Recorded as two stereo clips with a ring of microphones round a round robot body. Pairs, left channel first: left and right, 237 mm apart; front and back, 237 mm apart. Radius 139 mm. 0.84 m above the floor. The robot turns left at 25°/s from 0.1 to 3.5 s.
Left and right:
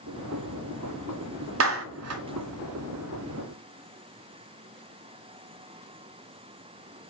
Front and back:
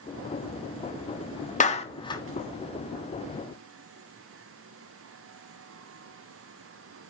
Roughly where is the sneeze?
I don't hear a sneeze.